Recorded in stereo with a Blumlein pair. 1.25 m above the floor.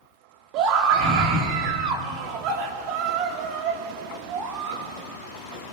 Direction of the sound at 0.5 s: 40° right.